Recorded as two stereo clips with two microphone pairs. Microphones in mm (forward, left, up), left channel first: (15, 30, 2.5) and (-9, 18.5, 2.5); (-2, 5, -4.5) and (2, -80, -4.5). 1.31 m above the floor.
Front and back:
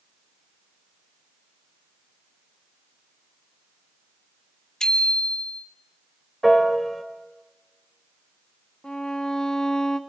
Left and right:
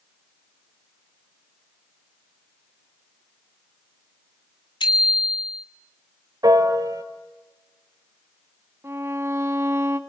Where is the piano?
65° right, 1.9 m.